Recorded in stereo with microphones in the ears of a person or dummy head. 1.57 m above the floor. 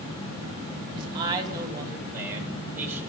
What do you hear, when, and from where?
0.9 s a man speaking: 30° right (ahead or behind), 2.5 m; by 3.0 s 10° right (ahead or behind), 4.5 m